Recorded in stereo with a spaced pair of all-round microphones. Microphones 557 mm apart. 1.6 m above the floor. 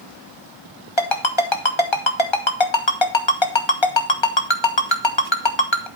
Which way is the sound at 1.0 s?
55° left (ahead or behind).